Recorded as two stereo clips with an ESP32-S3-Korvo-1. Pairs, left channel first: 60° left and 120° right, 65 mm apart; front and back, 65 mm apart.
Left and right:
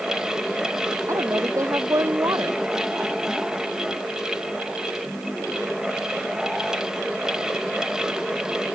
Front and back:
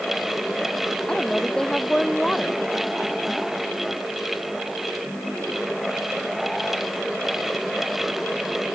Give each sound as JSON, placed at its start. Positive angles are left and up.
{"t": 1.1, "sound": "a woman speaking", "azimuth_deg": -80}